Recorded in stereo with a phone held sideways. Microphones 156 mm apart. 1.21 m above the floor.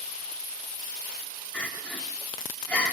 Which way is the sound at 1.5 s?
10° left (ahead or behind).